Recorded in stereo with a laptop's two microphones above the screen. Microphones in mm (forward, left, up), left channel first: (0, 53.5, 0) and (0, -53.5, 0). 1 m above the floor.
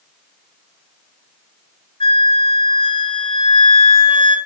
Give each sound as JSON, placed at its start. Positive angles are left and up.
{"t": 2.0, "sound": "a flute", "side_deg": 55, "distance_m": 0.7}